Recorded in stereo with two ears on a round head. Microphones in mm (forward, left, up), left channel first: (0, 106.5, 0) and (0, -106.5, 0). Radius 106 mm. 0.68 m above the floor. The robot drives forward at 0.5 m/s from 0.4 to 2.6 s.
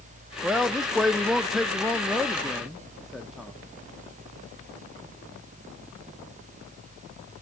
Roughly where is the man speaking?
Centre.